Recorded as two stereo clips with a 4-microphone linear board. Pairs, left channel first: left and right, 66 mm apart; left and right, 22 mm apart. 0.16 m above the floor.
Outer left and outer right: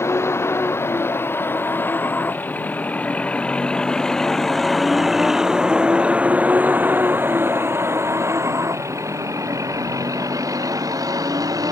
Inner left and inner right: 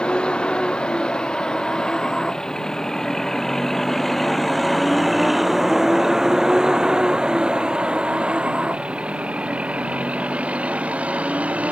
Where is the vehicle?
45° left (ahead or behind); by 11.7 s 70° right (ahead or behind).